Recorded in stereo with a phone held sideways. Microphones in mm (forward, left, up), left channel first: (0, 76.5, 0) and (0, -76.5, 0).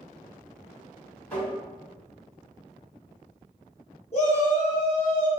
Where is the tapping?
10° left (ahead or behind), 1.6 m.